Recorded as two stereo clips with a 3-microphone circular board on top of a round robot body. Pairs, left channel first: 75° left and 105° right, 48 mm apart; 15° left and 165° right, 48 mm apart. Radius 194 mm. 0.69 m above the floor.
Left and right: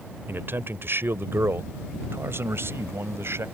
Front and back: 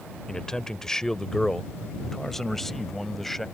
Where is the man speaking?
60° right; by 3.5 s 70° right.